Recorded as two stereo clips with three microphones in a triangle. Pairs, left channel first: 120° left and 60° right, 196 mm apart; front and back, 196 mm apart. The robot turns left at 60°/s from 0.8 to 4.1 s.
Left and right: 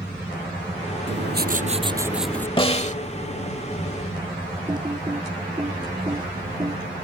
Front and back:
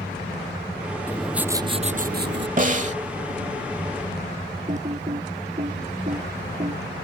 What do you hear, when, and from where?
1.1 s writing: 80° right; by 2.5 s 160° right
2.6 s a snare drum: 170° left; by 3.0 s 145° left
4.7 s typing on a keyboard: 130° right